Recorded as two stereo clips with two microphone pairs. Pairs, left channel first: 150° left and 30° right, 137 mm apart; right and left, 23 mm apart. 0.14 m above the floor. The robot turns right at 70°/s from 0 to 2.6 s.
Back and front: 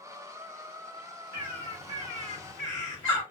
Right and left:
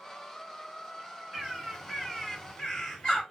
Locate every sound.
1.3 s a bird: 115° left, 2.5 m; by 3.2 s 155° right, 2.5 m